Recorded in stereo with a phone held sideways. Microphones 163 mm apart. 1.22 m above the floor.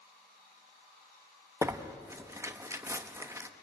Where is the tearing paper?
15° right (ahead or behind), 1.1 m.